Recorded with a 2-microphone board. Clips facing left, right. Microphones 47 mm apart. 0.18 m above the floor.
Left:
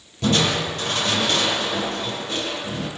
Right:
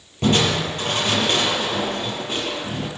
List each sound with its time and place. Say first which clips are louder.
0.2 s crushing: right 1 dB; 30° right (ahead or behind), 5.5 m